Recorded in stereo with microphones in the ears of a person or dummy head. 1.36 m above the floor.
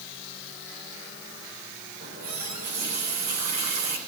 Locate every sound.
2.0 s a running tap: 50° right (ahead or behind), 3.5 m